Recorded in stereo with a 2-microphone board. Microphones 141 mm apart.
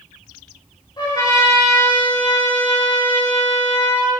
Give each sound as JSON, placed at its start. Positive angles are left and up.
{"t": 1.0, "sound": "a trumpet", "side_deg": 30, "distance_m": 4.0}